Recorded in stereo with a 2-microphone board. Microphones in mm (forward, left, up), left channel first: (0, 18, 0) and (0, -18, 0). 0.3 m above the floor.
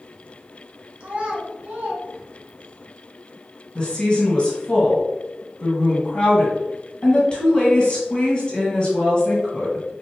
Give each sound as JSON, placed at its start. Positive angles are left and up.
{"t": 1.0, "sound": "a child speaking", "side_deg": -35, "distance_m": 1.5}
{"t": 3.8, "sound": "a woman speaking", "side_deg": 25, "distance_m": 1.4}